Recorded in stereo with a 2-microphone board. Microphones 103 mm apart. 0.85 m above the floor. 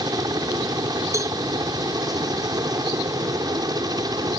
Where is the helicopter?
40° right (ahead or behind).